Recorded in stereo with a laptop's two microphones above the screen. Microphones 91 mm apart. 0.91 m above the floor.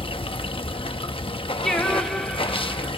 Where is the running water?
80° left, 0.7 m.